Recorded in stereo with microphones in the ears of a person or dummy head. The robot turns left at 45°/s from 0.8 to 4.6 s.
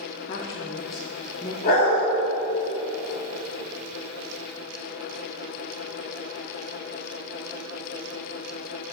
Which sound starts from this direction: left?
A dog barking, at 1.6 s.